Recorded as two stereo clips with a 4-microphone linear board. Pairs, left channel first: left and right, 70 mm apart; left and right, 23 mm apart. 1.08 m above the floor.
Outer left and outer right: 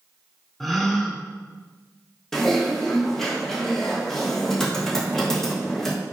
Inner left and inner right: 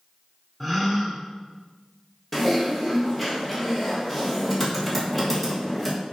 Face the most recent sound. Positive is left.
turn(degrees=5)  # may be behind; listen again after turning